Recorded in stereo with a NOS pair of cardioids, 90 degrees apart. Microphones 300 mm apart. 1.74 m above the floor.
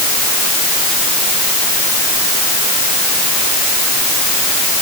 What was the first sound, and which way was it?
Only background noise.